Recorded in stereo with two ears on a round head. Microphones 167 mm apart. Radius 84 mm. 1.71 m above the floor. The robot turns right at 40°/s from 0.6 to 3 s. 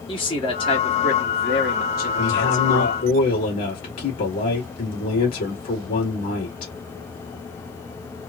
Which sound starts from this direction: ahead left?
A man speaking, at 0.1 s.